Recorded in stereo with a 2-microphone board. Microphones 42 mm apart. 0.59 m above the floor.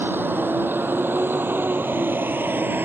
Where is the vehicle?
60° right (ahead or behind); by 2.8 s 55° right (ahead or behind).